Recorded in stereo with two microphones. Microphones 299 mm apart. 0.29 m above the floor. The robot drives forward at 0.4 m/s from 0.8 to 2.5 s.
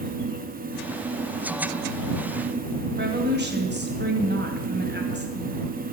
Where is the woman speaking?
35° right (ahead or behind), 2 m.